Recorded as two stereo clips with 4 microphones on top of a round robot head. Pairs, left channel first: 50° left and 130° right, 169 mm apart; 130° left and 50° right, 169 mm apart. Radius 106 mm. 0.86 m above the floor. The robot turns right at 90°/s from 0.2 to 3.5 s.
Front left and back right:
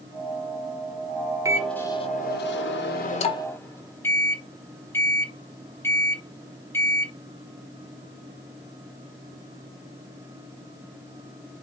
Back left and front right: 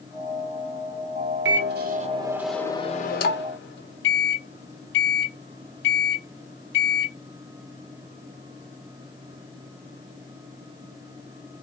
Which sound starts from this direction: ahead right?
A microwave, at 1.4 s.